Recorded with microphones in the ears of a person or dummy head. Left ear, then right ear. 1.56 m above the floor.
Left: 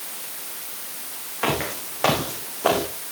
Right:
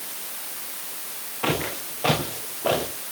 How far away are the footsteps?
About 7 m.